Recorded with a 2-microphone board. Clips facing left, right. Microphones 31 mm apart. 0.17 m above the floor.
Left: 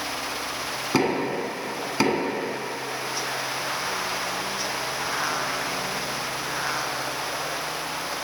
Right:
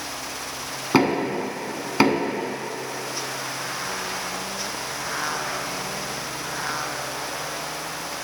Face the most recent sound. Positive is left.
turn(degrees=-25)  # may be behind; listen again after turning